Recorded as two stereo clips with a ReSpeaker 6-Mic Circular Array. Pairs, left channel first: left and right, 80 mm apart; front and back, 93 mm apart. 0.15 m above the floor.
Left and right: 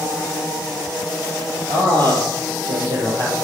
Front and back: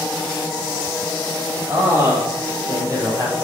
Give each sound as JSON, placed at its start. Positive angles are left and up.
{"t": 1.7, "sound": "a man speaking", "azimuth_deg": -105, "distance_m": 4.5}